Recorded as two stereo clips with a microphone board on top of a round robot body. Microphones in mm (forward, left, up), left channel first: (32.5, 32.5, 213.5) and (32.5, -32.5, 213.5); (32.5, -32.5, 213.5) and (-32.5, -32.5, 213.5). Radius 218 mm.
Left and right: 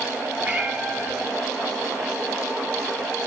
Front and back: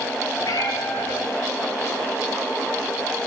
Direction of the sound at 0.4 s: 20° right.